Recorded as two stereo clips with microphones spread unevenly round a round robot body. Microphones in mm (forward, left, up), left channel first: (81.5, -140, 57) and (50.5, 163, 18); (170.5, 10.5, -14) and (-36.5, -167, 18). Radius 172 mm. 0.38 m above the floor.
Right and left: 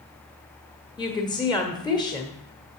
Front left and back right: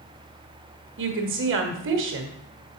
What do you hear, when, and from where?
1.0 s a woman speaking: 165° right, 1.1 m